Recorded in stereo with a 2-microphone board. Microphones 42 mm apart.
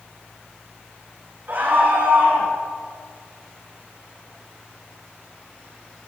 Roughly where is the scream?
Right.